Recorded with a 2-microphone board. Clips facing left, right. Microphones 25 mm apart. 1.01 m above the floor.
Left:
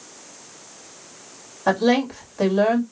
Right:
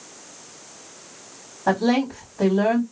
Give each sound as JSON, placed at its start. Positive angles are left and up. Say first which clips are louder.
{"t": 1.7, "sound": "a woman speaking", "louder": "left 1 dB", "side_deg": 65, "distance_m": 2.0}